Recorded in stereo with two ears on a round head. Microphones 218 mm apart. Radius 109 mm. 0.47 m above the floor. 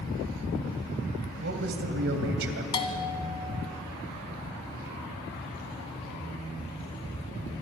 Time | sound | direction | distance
1.4 | a man speaking | 50° right (ahead or behind) | 2.5 m
2.7 | a bell | 20° left (ahead or behind) | 2.0 m